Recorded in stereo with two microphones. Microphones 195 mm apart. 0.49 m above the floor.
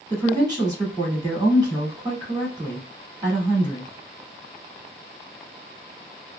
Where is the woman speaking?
20° right (ahead or behind), 1.5 m.